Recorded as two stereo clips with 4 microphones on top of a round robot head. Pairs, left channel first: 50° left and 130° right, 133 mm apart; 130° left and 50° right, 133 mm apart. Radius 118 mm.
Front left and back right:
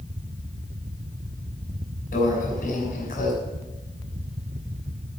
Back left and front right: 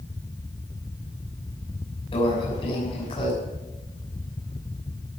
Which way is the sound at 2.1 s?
80° left.